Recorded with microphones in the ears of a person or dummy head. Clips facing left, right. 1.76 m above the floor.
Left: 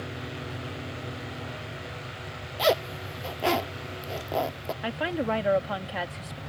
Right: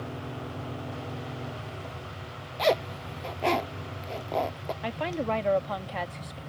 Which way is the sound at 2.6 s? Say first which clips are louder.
Left 1 dB; centre (ahead or behind).